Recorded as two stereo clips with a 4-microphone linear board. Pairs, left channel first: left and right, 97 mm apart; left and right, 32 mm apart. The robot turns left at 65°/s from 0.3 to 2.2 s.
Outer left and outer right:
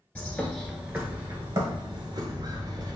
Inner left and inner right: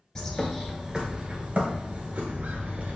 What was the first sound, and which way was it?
A bird, 20° left.